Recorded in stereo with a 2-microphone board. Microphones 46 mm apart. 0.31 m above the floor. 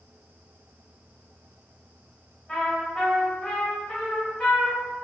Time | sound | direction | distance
2.5 | a trumpet | 15° left (ahead or behind) | 1.1 m